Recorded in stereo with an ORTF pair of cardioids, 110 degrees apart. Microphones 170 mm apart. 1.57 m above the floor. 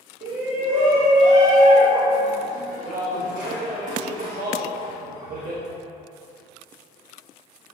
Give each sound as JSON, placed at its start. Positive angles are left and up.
{"t": 0.2, "sound": "a shout", "azimuth_deg": -55, "distance_m": 1.4}